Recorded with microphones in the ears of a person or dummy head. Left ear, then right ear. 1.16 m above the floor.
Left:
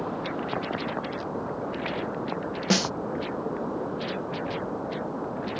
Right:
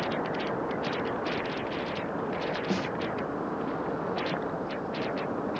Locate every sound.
2.7 s a snare drum: 45° left (ahead or behind)